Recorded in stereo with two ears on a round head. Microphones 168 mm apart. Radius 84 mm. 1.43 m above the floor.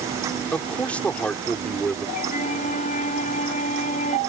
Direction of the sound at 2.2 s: 45° left (ahead or behind).